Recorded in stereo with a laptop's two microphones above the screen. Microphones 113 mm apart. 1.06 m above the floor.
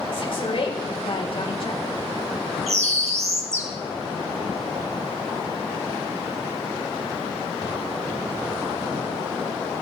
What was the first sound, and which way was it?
A woman speaking, 55° left (ahead or behind).